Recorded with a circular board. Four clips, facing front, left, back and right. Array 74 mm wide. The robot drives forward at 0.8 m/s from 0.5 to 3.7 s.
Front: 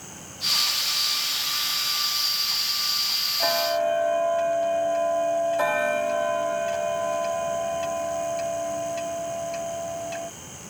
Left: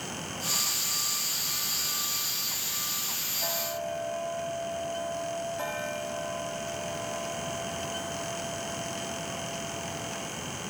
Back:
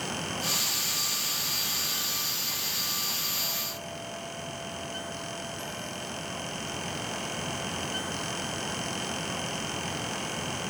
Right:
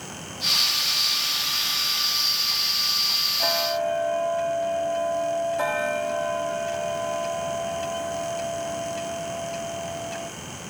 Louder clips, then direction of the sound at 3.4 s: Right 9 dB, front 16 dB; 30° right.